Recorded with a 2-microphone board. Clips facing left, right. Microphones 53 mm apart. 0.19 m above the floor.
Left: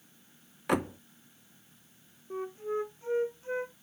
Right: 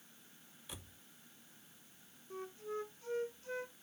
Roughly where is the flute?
Left.